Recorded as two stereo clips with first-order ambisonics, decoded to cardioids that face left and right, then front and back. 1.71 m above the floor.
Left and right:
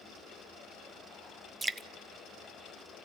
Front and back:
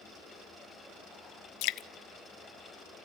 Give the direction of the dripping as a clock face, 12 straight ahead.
12 o'clock.